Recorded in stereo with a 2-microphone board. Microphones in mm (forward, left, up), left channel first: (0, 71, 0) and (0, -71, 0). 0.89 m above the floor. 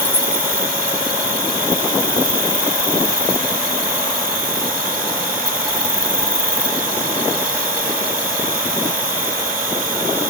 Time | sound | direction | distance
0.0 | an insect | 80° right | ?